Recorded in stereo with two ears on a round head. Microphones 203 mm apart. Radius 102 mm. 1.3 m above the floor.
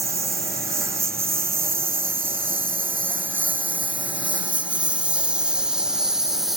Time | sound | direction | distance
0.0 | a lawn mower | 15° right (ahead or behind) | ?